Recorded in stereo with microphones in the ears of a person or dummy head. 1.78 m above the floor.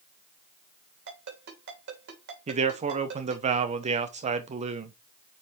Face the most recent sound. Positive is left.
turn(degrees=-40)  # may be behind; listen again after turning